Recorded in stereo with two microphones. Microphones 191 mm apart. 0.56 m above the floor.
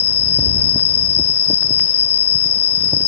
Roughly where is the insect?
Right.